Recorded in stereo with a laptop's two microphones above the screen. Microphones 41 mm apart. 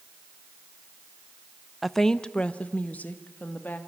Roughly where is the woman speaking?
Centre.